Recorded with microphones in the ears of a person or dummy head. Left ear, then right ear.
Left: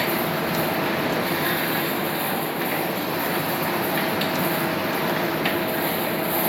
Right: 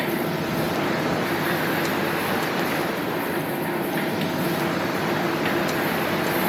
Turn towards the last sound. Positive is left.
turn(degrees=25)  # may be behind; listen again after turning